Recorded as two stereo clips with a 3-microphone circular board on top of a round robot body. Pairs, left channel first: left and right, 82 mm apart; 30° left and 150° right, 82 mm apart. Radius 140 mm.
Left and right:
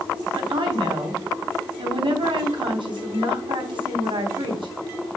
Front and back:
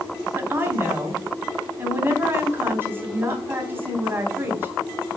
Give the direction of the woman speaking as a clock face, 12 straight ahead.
3 o'clock.